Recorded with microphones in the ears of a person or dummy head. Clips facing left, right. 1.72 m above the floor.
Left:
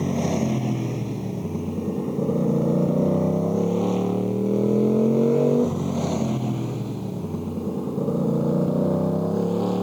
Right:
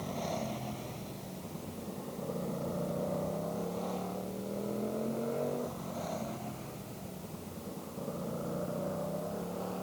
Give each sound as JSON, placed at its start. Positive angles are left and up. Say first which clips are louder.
{"t": 0.0, "sound": "a motorcycle", "louder": "left 14 dB", "side_deg": 70}